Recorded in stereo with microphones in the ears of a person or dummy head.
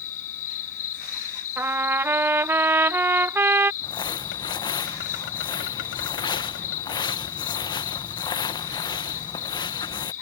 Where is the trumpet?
15° right (ahead or behind).